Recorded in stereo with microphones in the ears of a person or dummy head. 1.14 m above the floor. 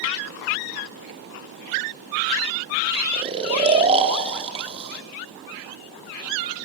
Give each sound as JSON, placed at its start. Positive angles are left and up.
{"t": 3.1, "sound": "snoring", "side_deg": -30, "distance_m": 2.0}